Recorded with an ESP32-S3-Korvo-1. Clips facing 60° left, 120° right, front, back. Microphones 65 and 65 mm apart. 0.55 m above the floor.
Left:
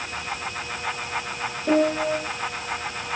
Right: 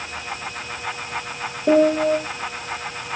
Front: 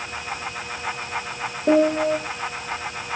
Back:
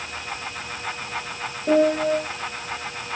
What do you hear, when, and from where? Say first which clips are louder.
1.7 s a piano: right 5 dB, front 1 dB; 70° right, 6.5 m